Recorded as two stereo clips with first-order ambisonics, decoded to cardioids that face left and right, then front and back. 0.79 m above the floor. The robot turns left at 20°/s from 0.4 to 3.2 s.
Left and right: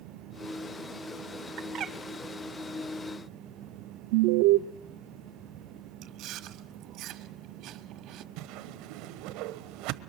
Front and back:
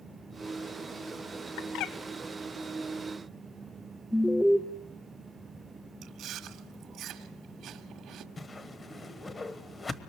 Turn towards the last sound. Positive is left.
turn(degrees=-75)